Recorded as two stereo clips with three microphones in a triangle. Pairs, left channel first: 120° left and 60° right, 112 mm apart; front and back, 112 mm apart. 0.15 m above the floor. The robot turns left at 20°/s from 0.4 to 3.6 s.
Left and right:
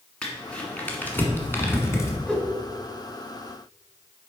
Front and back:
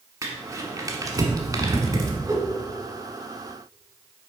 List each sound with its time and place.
0.2 s crumpling: 165° right, 1.2 m; by 2.2 s 155° left, 1.2 m
2.3 s a whoosh: 170° right, 1.3 m; by 2.5 s 175° right, 1.3 m